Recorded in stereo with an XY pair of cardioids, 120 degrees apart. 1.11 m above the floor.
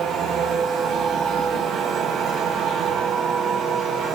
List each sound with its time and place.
0.0 s a machine running: 55° right, 2.5 m